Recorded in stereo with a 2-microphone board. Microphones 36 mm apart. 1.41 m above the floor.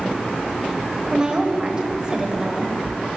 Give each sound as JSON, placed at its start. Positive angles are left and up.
{"t": 1.1, "sound": "a woman speaking", "side_deg": -25, "distance_m": 0.7}